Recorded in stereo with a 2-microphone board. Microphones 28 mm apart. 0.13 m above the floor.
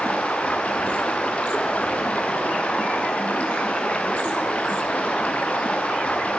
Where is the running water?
45° left (ahead or behind), 1.6 m.